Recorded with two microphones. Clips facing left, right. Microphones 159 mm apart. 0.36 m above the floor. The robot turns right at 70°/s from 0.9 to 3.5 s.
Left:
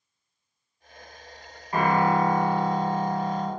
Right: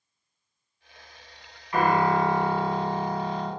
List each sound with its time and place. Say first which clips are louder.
1.7 s a piano: even; 35° left, 0.7 m; by 3.5 s 160° left, 0.7 m